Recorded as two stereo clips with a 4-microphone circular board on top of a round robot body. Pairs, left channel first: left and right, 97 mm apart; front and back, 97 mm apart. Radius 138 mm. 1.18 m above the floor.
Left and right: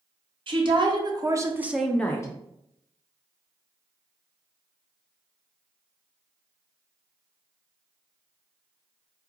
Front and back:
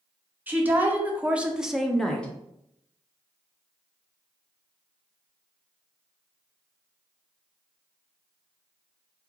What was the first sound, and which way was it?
A woman speaking, 110° right.